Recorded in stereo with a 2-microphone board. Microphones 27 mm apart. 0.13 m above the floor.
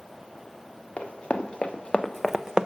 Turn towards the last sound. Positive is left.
turn(degrees=-35)  # may be behind; listen again after turning